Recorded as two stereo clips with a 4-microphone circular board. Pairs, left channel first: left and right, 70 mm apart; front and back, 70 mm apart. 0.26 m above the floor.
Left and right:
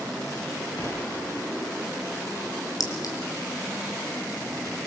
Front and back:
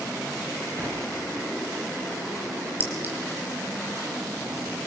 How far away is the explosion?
About 10 m.